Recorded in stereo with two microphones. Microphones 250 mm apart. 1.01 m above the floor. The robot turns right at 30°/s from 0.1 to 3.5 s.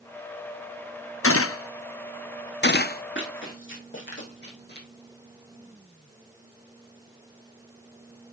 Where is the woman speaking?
No woman speaking in this recording.